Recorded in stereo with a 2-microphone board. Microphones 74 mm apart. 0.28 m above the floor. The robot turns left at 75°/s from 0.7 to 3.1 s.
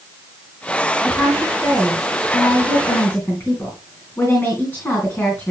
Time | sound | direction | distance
1.0 | a woman speaking | 165° right | 2.5 m